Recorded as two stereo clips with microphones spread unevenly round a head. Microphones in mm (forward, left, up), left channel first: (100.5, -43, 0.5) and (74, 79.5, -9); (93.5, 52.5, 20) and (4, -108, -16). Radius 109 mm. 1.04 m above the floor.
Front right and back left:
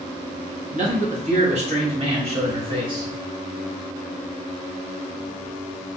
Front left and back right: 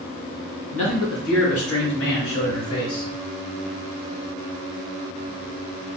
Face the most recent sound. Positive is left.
turn(degrees=50)